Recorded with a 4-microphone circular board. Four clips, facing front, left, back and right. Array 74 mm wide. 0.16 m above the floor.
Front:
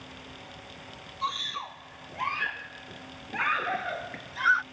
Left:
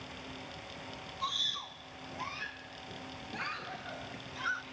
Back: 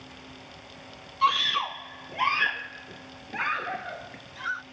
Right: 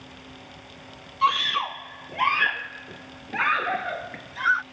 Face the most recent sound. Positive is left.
turn(degrees=-55)